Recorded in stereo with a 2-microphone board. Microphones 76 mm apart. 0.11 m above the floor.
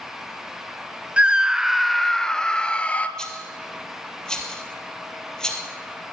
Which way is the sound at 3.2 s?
10° left (ahead or behind).